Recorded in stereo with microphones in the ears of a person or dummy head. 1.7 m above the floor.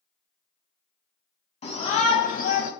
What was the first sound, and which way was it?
A shout, 35° left (ahead or behind).